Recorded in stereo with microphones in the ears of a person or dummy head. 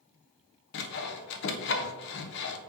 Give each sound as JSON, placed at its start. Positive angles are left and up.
{"t": 0.7, "sound": "sawing", "side_deg": 60, "distance_m": 0.7}